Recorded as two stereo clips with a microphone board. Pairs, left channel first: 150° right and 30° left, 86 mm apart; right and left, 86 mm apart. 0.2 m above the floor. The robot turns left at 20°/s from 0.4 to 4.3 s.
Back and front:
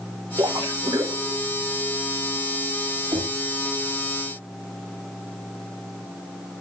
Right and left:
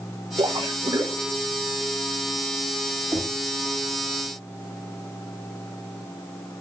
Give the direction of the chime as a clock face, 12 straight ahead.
I don't hear a chime.